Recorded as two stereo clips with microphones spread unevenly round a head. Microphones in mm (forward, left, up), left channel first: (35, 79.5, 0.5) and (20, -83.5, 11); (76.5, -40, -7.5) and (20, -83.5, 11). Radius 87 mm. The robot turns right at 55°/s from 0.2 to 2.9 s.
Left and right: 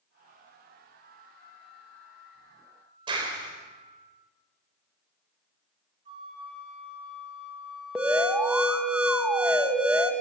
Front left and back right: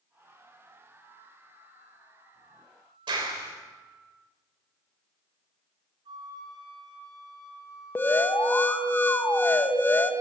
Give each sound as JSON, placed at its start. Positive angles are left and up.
{"t": 1.0, "sound": "a flute", "azimuth_deg": 25, "distance_m": 9.5}
{"t": 3.1, "sound": "a clap", "azimuth_deg": -160, "distance_m": 4.0}
{"t": 6.0, "sound": "a flute", "azimuth_deg": -160, "distance_m": 4.5}
{"t": 8.0, "sound": "an alarm", "azimuth_deg": -10, "distance_m": 2.0}